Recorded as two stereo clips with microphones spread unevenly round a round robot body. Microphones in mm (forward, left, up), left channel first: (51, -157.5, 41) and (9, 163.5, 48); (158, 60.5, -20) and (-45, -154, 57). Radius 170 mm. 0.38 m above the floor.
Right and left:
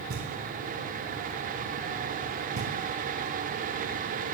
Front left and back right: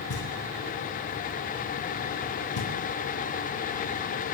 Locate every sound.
0.1 s knocking: 50° left, 4 m